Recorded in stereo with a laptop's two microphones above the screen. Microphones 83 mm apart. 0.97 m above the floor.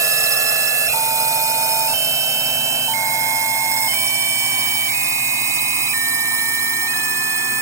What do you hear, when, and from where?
0.0 s a drone: 40° right (ahead or behind); by 7.6 s 35° right (ahead or behind)